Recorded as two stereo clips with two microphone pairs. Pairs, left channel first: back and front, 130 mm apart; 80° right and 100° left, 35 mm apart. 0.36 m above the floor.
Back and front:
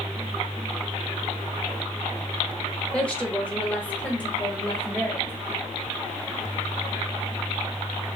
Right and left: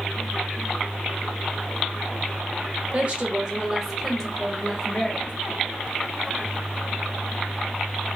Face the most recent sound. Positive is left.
turn(degrees=-110)